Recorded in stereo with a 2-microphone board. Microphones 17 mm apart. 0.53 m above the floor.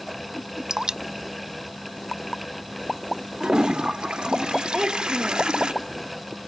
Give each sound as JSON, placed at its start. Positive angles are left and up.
{"t": 0.7, "sound": "dripping", "side_deg": -45}
{"t": 3.4, "sound": "a toilet flushing", "side_deg": -65}
{"t": 4.7, "sound": "a child speaking", "side_deg": -45}